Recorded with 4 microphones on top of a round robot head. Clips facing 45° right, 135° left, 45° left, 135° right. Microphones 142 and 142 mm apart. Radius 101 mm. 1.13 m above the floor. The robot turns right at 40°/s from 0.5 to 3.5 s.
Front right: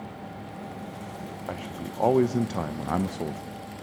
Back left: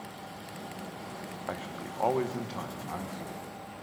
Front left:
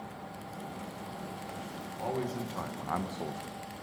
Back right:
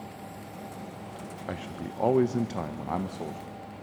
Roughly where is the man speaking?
Behind right.